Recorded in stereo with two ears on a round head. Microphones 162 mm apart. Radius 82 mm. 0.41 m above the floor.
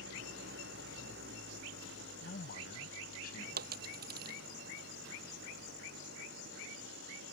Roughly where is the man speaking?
Left.